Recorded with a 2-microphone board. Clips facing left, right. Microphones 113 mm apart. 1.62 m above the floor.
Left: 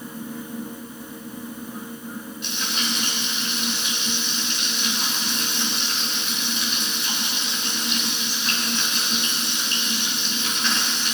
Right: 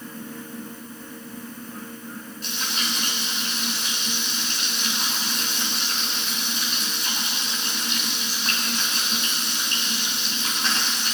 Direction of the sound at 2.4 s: 40° right (ahead or behind).